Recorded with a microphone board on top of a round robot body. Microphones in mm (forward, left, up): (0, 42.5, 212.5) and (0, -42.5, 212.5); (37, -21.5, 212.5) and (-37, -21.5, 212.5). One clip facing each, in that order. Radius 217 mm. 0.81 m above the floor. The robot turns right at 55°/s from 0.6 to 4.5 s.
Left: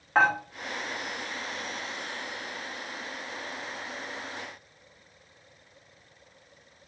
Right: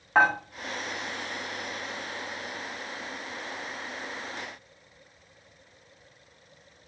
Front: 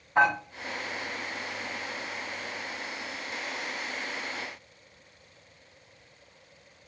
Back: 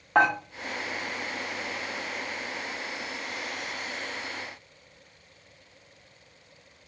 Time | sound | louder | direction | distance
0.1 | dishes clattering | right 1 dB, back 1 dB | 175° right | 1.6 m